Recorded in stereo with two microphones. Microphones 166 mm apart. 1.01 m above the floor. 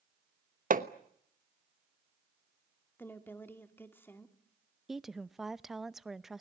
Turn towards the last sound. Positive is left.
turn(degrees=0)  # may be behind; listen again after turning